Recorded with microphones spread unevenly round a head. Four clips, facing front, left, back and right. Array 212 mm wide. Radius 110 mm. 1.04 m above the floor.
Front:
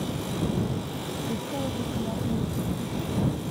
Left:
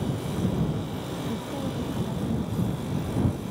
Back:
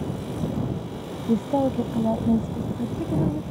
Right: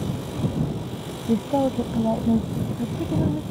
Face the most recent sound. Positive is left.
turn(degrees=-125)